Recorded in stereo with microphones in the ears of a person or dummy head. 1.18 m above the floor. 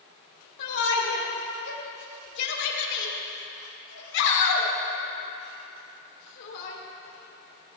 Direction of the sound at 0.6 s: 70° left (ahead or behind).